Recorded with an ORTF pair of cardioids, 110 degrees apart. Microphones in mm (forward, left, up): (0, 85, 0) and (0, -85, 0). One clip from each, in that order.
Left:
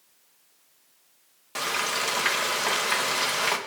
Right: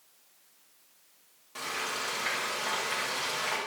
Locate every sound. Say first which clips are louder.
1.6 s frying: left 7 dB; 60° left, 1.3 m